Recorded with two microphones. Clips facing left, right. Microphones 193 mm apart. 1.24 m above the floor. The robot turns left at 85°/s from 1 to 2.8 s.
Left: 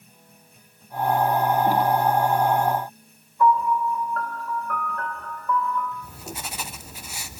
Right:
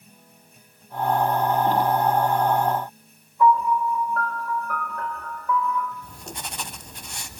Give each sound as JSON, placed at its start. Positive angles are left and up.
{"t": 3.4, "sound": "a piano", "side_deg": -5, "distance_m": 3.5}
{"t": 6.0, "sound": "writing", "side_deg": 5, "distance_m": 0.7}